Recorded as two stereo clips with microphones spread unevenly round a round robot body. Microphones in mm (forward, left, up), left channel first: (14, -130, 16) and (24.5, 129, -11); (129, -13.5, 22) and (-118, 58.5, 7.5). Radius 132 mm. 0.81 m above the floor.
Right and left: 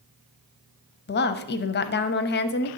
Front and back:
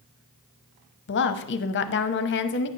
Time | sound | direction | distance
1.1 | a woman speaking | 50° right | 0.7 m